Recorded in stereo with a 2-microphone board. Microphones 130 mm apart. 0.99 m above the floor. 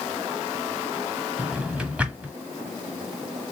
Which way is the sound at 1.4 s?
10° right (ahead or behind).